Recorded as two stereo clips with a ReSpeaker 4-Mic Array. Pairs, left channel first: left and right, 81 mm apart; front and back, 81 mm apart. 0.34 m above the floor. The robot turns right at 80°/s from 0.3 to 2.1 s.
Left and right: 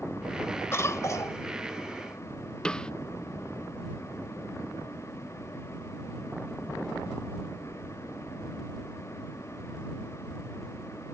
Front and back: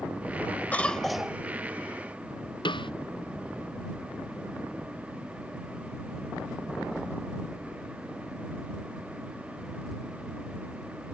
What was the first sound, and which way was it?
A cough, 55° left.